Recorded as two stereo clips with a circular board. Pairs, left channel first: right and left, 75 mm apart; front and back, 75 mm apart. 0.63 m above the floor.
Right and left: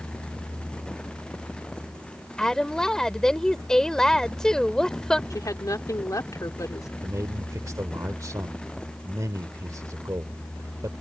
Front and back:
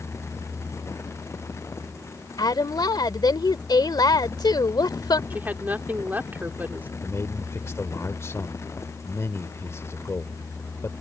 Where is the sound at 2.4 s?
10° right.